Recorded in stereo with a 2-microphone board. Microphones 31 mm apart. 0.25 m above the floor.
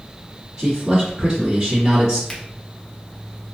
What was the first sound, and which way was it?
A man speaking, 20° right (ahead or behind).